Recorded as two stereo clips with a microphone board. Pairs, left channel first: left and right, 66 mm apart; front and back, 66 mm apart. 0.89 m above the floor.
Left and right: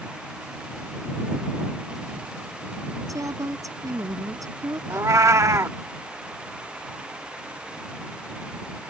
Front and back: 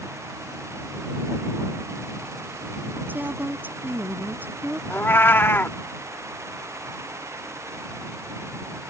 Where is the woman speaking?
120° right.